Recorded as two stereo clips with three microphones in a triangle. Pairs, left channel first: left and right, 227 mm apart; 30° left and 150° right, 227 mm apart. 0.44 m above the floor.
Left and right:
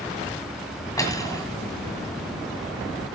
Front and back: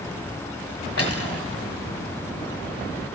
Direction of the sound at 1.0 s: 15° left.